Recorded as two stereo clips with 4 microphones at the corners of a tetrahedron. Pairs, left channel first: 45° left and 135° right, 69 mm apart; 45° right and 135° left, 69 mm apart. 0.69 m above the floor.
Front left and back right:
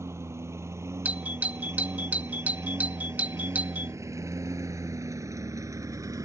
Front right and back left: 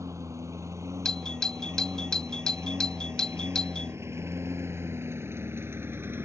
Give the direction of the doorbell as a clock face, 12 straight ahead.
4 o'clock.